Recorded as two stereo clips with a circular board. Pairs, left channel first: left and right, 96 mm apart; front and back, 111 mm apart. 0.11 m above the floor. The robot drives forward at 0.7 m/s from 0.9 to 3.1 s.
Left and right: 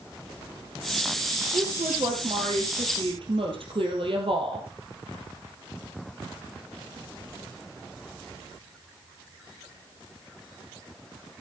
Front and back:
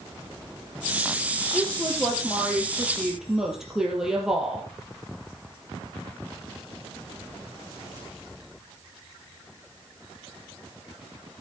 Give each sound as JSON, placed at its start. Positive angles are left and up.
{"t": 1.5, "sound": "a woman speaking", "azimuth_deg": -70, "distance_m": 3.0}